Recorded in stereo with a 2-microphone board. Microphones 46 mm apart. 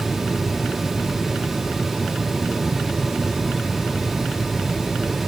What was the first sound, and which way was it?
Only background noise.